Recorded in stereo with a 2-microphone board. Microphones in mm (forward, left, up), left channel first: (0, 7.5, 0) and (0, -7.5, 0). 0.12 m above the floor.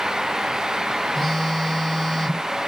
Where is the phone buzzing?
35° left (ahead or behind), 3 m.